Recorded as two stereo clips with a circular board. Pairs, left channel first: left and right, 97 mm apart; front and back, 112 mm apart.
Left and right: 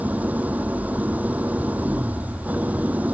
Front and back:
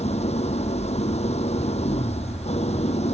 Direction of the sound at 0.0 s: 15° right.